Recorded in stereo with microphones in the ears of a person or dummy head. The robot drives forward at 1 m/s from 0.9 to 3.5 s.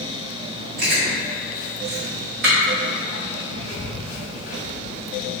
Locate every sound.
0.8 s chewing: 50° right (ahead or behind), 1.8 m; by 5.0 s 40° right (ahead or behind), 2 m